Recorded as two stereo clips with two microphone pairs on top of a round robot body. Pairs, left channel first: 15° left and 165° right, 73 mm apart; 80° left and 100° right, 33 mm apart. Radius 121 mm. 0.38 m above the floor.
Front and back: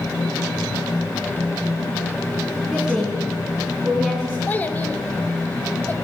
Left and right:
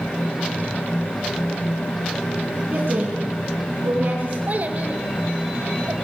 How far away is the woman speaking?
About 4.5 m.